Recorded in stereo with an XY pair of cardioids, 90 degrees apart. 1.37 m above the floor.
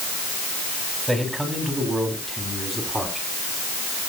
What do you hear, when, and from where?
1.1 s a man speaking: 10° right, 7.5 m; by 3.3 s 5° right, 10 m